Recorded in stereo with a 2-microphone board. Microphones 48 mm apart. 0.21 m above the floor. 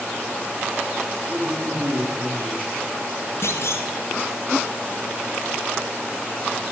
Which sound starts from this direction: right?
A man speaking, at 1.3 s.